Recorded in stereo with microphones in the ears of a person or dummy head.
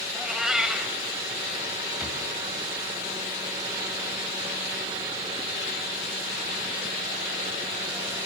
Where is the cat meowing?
Centre (ahead or behind), 1.2 m.